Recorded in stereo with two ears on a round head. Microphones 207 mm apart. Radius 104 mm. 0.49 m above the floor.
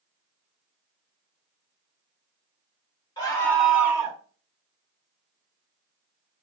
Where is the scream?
20° left (ahead or behind), 2 m; by 4.2 s 25° right (ahead or behind), 1.7 m.